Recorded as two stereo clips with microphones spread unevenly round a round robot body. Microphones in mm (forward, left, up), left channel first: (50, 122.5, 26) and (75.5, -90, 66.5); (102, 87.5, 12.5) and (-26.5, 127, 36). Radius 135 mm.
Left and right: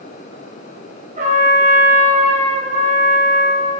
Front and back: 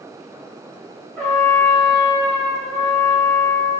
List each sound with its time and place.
1.2 s a trumpet: 75° right, 1.1 m